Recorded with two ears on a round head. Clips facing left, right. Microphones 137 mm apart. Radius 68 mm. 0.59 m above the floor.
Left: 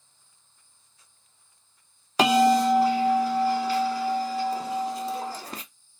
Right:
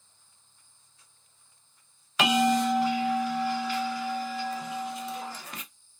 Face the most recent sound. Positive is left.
turn(degrees=30)  # may be behind; listen again after turning